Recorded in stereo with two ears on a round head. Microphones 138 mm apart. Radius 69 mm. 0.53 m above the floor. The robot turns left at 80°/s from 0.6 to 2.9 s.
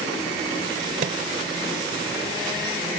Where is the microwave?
55° right (ahead or behind); by 1.2 s 40° right (ahead or behind).